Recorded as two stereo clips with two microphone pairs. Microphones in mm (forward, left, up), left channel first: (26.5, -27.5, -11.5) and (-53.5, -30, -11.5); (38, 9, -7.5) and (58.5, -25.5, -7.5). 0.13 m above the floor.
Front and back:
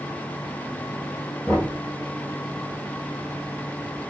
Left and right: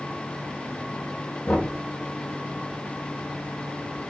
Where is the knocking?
75° left, 2.5 m.